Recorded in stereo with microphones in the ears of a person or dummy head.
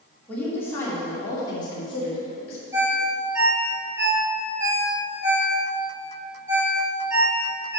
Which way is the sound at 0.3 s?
10° left (ahead or behind).